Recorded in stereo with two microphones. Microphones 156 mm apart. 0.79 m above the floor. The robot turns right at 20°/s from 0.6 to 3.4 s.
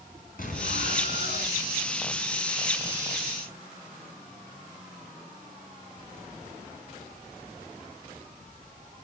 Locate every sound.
0.4 s an explosion: 65° left (ahead or behind), 4.5 m; by 1.6 s 80° left, 4.5 m